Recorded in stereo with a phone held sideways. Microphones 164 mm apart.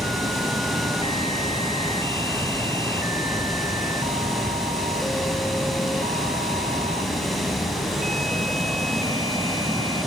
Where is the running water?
Centre (ahead or behind), 5.5 m.